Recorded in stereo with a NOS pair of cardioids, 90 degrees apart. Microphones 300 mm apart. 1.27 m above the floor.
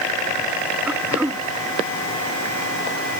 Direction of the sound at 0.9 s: 5° right.